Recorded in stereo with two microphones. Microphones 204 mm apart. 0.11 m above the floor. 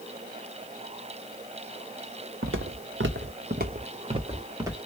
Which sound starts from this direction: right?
Footsteps, at 2.4 s.